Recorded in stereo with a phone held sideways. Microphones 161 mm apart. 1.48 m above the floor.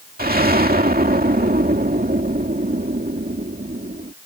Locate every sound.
0.2 s an explosion: 75° right (ahead or behind)